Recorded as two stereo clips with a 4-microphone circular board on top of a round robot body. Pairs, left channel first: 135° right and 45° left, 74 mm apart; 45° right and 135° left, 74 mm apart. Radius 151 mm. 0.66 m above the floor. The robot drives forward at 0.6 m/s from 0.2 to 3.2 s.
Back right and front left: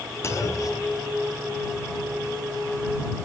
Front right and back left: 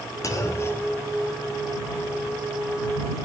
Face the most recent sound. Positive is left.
turn(degrees=-145)